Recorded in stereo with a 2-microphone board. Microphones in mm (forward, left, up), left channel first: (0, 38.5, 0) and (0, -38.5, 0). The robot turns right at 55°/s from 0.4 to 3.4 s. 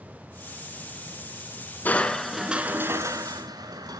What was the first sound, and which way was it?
Crushing, 155° left.